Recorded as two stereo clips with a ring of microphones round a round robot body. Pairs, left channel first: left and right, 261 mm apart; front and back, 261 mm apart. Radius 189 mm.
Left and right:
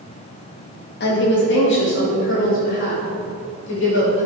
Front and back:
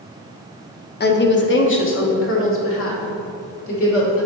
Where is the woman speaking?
45° left, 0.9 m; by 4.2 s 35° left, 3 m.